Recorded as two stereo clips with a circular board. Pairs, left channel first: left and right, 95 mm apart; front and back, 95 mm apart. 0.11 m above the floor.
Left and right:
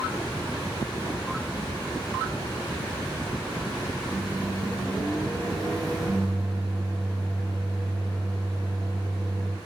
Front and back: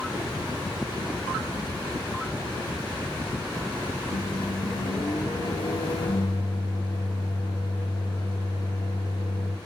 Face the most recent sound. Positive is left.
turn(degrees=0)